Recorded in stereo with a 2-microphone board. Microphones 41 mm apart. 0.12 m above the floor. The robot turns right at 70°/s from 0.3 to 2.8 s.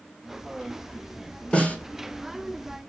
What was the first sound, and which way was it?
A snare drum, 30° left (ahead or behind).